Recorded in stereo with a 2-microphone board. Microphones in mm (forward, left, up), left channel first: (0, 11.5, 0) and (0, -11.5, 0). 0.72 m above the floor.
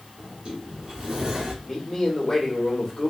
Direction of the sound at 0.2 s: 35° right (ahead or behind).